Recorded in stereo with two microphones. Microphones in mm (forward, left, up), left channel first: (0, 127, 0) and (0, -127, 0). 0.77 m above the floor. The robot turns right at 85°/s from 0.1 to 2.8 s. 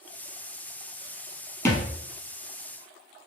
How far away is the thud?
About 1.3 m.